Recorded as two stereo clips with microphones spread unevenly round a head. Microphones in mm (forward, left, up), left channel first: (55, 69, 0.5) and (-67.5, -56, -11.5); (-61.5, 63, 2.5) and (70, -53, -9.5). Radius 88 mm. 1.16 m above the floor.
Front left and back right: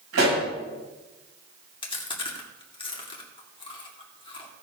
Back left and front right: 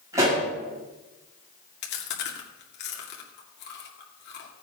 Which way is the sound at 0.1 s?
115° right.